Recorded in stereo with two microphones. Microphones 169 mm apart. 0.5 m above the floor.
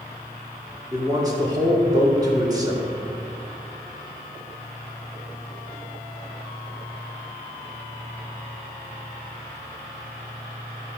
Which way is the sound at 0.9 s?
20° right (ahead or behind).